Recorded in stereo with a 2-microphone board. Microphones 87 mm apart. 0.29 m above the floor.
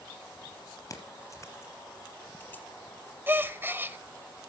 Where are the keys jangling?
40° left (ahead or behind), 4 m; by 2.6 s 20° left (ahead or behind), 3.5 m.